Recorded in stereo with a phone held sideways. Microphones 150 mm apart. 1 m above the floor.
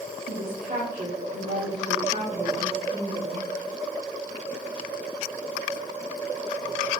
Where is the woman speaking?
70° right (ahead or behind), 2 m.